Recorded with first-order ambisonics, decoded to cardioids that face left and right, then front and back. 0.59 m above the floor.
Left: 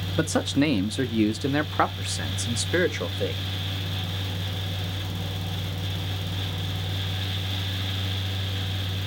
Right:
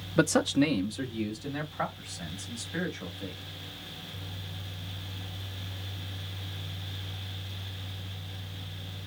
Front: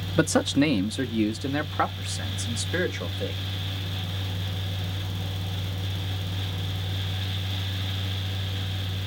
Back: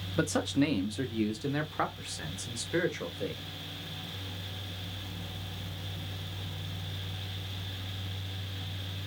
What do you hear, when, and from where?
0.2 s a man speaking: 25° right, 0.6 m; by 3.4 s 80° left, 2 m